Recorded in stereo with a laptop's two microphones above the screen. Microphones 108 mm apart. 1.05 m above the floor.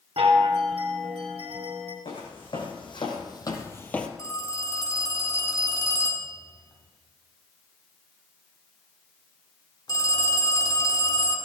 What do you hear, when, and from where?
0.2 s a chime: 65° right (ahead or behind), 2.5 m
2.0 s footsteps: 55° left (ahead or behind), 3 m; by 4.1 s 5° left (ahead or behind), 1.1 m
4.2 s a phone ringing: 40° left (ahead or behind), 1.5 m